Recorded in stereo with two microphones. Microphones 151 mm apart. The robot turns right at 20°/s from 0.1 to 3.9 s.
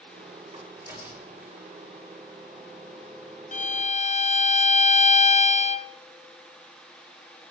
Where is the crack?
25° right (ahead or behind), 4.5 m; by 1.7 s 5° right (ahead or behind), 4.5 m.